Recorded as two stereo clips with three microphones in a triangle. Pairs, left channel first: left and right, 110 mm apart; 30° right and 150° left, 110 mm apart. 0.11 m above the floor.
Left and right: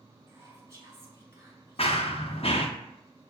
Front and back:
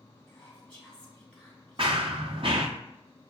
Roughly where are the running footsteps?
Behind left.